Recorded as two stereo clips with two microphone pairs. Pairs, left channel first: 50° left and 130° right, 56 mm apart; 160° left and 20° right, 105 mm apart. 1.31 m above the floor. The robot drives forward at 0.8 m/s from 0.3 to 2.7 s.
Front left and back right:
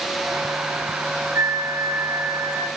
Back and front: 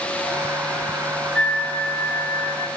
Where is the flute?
125° right, 1.6 m; by 2.7 s 145° right, 2.5 m.